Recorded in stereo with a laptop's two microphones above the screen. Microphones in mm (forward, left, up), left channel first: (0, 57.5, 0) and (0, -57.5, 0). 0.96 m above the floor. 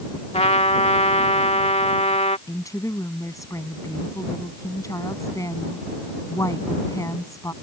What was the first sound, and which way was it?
A trumpet, 65° left (ahead or behind).